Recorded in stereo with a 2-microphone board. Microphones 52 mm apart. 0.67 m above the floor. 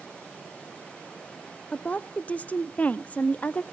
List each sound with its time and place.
1.7 s a woman speaking: 30° left (ahead or behind), 0.5 m